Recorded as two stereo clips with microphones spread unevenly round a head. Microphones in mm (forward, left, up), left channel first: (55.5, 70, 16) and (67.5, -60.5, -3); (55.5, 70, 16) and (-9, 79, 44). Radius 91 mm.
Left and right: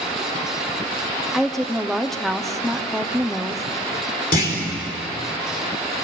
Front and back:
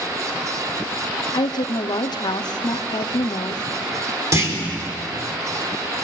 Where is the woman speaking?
5° left, 1.0 m.